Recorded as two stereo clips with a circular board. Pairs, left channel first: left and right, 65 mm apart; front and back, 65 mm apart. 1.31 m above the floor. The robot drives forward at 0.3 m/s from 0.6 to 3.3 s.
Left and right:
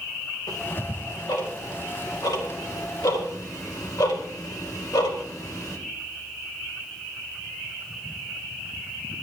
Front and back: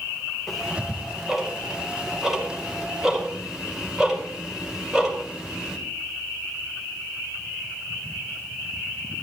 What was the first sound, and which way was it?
Ticking, 90° left.